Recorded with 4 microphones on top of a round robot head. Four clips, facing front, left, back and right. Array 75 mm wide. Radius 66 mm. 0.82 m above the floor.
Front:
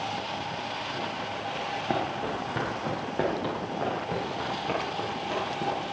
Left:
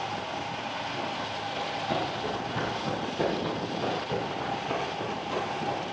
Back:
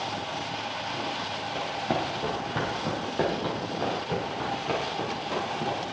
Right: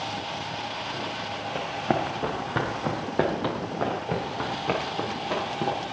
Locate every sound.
1.6 s running footsteps: 95° right, 2.5 m; by 5.9 s 90° right, 6 m